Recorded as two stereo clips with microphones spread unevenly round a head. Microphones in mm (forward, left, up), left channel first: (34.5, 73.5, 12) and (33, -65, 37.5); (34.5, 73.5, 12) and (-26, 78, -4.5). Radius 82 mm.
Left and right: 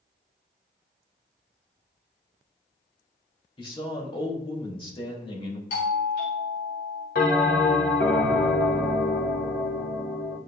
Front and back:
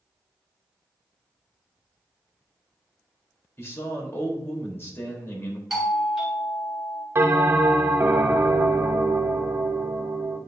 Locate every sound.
3.6 s a man speaking: 45° left, 3 m
5.7 s a doorbell: 95° left, 3 m
7.2 s a bell: 125° left, 1.4 m